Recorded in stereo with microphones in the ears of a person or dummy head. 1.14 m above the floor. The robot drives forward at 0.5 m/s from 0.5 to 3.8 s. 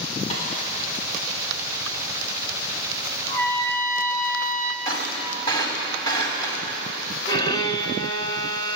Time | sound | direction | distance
0.3 | a snare drum | 35° left (ahead or behind) | 4.5 m
3.3 | a trumpet | 15° left (ahead or behind) | 1.0 m
4.8 | breaking glass | 20° left (ahead or behind) | 4 m
7.3 | a violin | 25° left (ahead or behind) | 0.9 m